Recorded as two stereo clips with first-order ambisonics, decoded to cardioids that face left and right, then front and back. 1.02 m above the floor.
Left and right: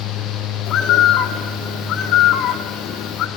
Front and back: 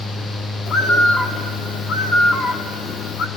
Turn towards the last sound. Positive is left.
turn(degrees=40)